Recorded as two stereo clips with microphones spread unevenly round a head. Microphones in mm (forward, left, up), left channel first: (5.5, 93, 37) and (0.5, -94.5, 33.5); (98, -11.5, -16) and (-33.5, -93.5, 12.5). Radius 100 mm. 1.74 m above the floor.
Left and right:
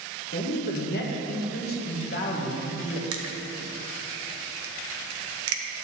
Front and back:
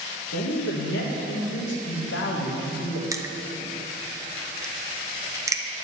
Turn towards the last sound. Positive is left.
turn(degrees=-85)